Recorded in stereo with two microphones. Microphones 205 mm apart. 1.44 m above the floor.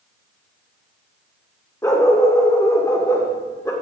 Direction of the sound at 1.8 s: 15° left (ahead or behind).